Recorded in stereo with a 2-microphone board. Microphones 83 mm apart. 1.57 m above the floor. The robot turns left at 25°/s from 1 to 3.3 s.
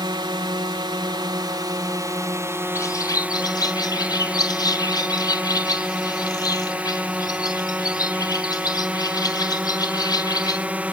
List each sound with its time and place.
0.0 s a drone: 105° right; by 10.9 s 160° right
2.8 s a bird: 35° left (ahead or behind); by 10.7 s 50° left (ahead or behind)